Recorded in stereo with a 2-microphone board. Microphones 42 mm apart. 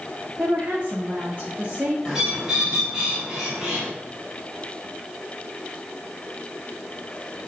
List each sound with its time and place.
0.4 s a woman speaking: 35° right (ahead or behind), 1.3 m
2.0 s a bird: 10° right (ahead or behind), 3.5 m